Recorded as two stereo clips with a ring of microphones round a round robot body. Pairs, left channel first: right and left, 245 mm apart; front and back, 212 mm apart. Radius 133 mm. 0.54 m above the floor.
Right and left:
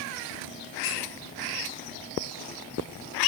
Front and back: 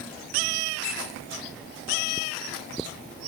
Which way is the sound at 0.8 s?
50° right.